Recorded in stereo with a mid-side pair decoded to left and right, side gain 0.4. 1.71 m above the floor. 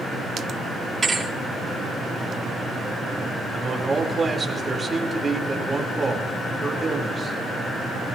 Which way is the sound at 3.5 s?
25° right.